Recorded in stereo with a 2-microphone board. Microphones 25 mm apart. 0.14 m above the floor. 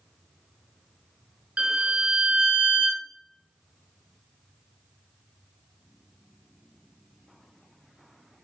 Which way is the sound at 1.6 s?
55° right (ahead or behind).